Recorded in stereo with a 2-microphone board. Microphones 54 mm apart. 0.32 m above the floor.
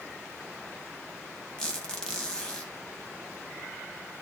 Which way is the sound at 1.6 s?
15° left (ahead or behind).